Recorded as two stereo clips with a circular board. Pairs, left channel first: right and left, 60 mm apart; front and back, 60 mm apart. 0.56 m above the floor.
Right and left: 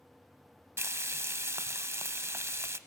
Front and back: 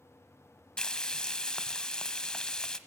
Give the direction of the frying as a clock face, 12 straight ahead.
10 o'clock.